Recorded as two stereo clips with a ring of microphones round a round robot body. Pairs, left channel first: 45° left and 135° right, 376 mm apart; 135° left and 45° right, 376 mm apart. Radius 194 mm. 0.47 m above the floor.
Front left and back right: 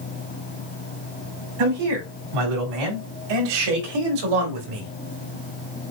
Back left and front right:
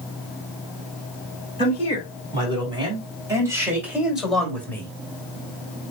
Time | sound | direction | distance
1.6 | a man speaking | 120° right | 4 m